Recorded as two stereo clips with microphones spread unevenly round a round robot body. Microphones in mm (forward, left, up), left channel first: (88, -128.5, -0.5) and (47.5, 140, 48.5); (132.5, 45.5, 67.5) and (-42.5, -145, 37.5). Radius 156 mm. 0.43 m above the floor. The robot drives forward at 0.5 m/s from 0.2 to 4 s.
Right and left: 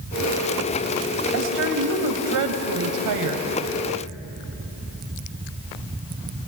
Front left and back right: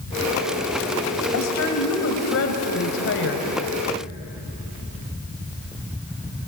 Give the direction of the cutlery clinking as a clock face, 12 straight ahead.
No cutlery clinking in this recording.